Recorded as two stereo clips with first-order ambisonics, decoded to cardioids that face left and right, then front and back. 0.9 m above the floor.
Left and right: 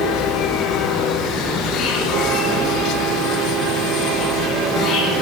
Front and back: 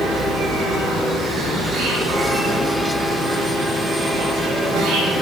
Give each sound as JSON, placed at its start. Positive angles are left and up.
{"t": 0.0, "sound": "an insect", "azimuth_deg": 145, "distance_m": 7.5}